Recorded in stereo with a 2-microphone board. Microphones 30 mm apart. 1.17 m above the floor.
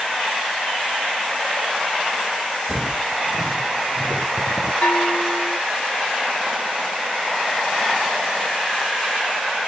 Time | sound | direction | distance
2.7 | footsteps | 35° right (ahead or behind) | 5.5 m
4.8 | a bell | 50° left (ahead or behind) | 1.4 m